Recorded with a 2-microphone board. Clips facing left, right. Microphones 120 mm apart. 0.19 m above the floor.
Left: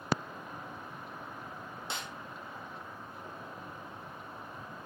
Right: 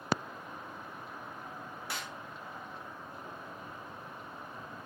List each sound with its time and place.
1.9 s a snare drum: 25° left (ahead or behind), 2.5 m